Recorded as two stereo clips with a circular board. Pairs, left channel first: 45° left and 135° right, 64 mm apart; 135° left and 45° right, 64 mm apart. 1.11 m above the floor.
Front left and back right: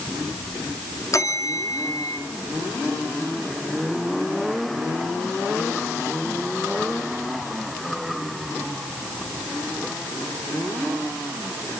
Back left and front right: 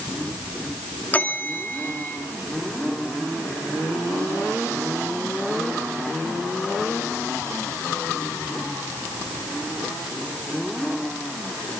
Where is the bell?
70° left, 2.5 m.